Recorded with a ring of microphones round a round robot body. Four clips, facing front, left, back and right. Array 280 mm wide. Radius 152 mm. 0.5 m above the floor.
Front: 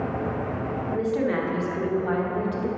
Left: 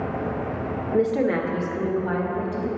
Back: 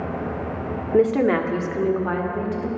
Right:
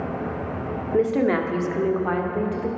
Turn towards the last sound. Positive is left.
turn(degrees=-100)